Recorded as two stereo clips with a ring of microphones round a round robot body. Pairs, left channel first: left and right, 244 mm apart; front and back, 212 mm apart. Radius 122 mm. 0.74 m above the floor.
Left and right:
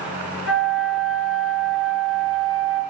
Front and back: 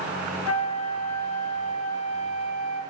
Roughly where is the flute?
Ahead.